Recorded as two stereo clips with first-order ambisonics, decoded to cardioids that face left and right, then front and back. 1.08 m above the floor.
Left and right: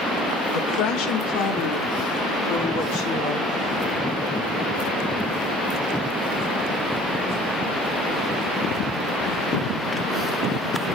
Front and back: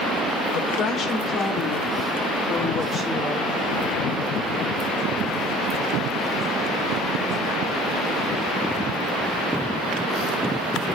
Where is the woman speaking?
50° left, 1.2 m; by 4.2 s 100° left, 3.5 m.